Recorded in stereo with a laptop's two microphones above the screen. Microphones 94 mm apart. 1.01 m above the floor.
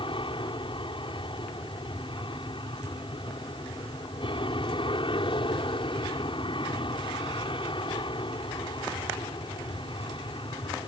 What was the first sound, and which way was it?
An aircraft, 60° left (ahead or behind).